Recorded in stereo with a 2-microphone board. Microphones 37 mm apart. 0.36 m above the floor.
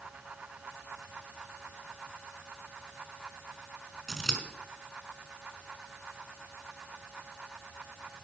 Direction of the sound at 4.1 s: 5° left (ahead or behind).